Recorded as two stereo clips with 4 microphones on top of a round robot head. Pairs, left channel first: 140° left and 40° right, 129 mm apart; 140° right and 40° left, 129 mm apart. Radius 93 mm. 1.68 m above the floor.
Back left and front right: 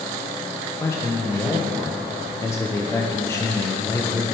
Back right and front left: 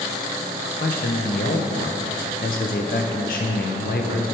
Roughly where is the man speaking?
Behind right.